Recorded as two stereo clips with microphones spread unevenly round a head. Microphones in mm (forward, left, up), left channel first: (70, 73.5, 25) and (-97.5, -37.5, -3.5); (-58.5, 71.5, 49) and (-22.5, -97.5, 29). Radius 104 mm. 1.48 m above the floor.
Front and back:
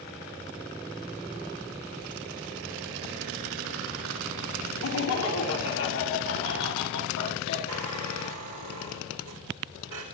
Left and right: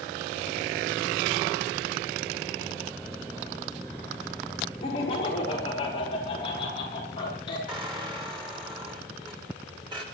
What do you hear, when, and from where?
4.8 s laughter: 40° left, 4 m; by 7.6 s 35° left, 5.5 m
7.7 s a squeak: 140° right, 3.5 m